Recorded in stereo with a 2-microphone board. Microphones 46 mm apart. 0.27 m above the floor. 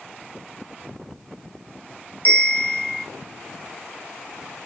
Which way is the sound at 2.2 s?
35° left (ahead or behind).